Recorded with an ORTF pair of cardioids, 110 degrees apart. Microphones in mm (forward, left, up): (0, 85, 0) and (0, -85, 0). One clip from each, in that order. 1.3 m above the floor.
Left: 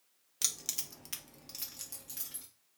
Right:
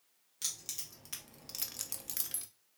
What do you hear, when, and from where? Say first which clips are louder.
0.4 s keys jangling: left 5 dB; 45° left, 0.7 m; by 2.5 s 55° right, 0.8 m